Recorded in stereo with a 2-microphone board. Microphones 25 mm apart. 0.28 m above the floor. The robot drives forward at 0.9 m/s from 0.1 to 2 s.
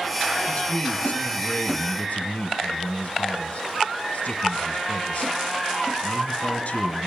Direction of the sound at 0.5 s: 50° left (ahead or behind).